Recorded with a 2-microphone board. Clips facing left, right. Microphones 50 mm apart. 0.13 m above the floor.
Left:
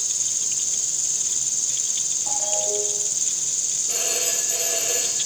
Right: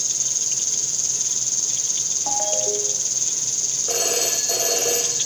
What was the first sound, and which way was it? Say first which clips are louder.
An insect: right 2 dB; 10° left (ahead or behind).